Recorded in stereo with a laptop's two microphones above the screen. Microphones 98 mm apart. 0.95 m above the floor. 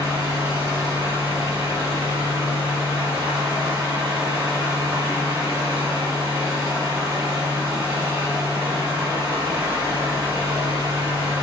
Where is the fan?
45° right (ahead or behind), 1.6 m.